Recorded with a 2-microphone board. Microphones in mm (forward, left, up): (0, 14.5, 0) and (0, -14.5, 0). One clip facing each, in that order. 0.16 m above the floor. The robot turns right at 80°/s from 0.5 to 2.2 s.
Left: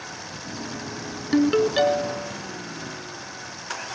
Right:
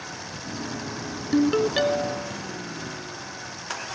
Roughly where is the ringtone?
Behind left.